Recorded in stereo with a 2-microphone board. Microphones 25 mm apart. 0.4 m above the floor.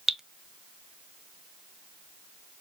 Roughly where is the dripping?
Centre.